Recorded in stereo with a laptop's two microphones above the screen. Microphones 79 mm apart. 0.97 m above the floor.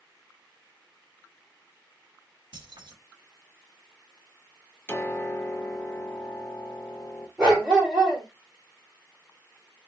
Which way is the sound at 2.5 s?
80° right.